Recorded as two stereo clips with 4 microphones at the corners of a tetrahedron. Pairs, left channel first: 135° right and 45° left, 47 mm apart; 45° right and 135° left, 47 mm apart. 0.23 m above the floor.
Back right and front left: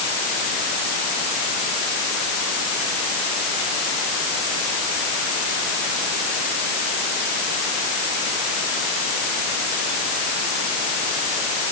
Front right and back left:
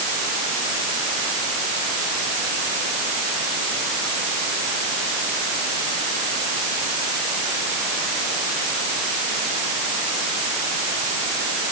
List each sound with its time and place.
Only background noise.